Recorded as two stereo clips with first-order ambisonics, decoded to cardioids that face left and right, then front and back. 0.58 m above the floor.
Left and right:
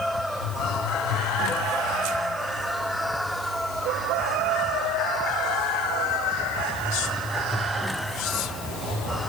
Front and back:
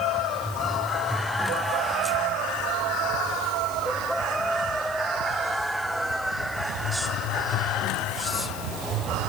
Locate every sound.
Only background noise.